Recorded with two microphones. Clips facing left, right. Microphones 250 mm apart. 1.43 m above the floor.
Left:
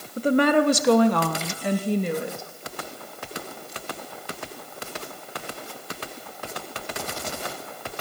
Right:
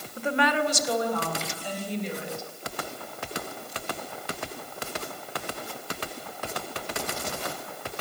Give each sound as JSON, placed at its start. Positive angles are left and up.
{"t": 0.2, "sound": "a woman speaking", "side_deg": 35, "distance_m": 1.6}